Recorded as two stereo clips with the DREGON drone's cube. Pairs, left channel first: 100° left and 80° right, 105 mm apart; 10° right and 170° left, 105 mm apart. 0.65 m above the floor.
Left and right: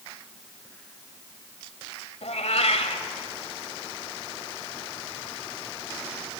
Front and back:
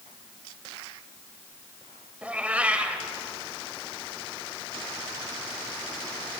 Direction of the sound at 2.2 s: 90° left.